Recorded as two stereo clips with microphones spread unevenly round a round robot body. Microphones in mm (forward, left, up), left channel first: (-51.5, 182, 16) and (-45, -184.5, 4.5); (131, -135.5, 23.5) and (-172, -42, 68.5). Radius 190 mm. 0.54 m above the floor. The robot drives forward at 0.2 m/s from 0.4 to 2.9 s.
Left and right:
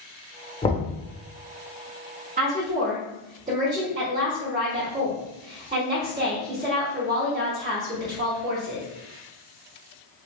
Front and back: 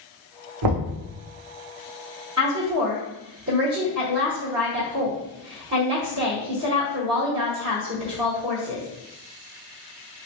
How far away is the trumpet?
No trumpet in this recording.